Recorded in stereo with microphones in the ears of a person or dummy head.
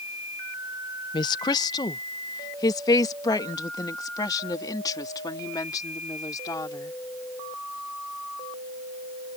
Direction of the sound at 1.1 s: 25° left (ahead or behind).